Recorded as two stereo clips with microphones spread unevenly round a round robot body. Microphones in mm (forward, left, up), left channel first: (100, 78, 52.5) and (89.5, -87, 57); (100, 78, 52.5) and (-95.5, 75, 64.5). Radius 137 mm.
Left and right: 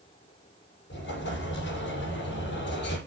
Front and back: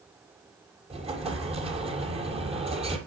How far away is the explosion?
About 5 m.